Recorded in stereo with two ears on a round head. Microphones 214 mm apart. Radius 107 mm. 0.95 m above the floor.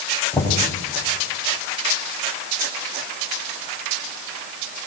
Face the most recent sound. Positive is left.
turn(degrees=10)  # may be behind; listen again after turning